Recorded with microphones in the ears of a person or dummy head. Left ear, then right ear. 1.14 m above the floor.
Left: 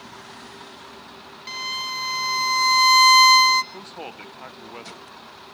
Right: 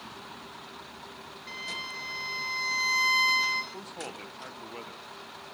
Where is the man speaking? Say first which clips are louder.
Left 3 dB; 15° left (ahead or behind), 0.9 m.